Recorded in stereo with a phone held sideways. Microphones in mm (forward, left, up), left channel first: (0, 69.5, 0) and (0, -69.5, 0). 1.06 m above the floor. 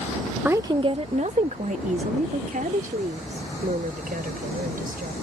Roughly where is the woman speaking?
Centre.